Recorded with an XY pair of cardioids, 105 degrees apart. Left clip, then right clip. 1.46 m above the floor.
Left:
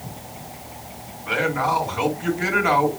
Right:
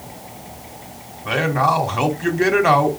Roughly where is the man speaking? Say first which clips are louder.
Right 4 dB; ahead right.